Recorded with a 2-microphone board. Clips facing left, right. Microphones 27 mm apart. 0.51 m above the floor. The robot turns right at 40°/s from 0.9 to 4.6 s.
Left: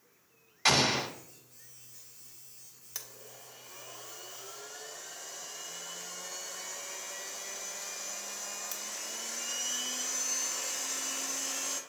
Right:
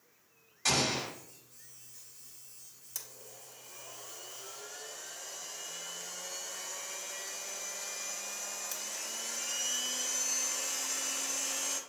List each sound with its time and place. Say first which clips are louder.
0.7 s an explosion: left 4 dB; 35° left (ahead or behind), 1.1 m
3.0 s a blender: left 2 dB; 100° left, 0.9 m; by 11.8 s 165° left, 0.9 m